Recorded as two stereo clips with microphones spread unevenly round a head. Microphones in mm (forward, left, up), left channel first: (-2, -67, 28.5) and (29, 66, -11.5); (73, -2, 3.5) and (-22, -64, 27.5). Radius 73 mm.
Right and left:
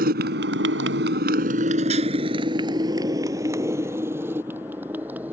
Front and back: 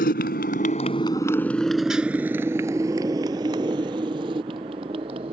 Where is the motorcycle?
50° left; by 5.3 s 160° left.